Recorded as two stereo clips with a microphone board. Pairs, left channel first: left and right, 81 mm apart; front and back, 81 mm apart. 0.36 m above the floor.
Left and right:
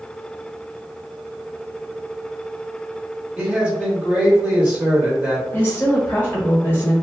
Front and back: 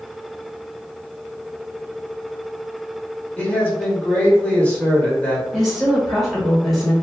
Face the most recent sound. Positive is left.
turn(degrees=90)